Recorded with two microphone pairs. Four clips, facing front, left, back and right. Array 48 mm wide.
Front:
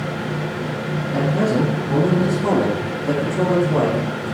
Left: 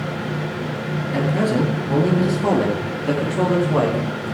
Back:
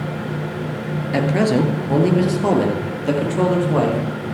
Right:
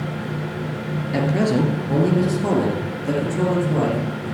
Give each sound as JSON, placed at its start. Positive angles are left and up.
{"t": 1.1, "sound": "a man speaking", "azimuth_deg": -175, "distance_m": 3.0}